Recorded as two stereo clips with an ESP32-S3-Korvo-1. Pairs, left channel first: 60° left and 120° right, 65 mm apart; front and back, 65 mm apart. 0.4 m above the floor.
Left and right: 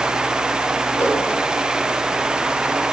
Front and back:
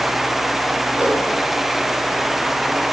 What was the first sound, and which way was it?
A whoosh, 105° left.